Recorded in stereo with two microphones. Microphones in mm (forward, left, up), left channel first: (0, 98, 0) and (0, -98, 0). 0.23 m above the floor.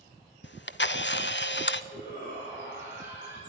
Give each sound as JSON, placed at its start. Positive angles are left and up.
{"t": 0.4, "sound": "a camera shutter", "side_deg": 70, "distance_m": 0.6}
{"t": 1.9, "sound": "a shout", "side_deg": 75, "distance_m": 4.5}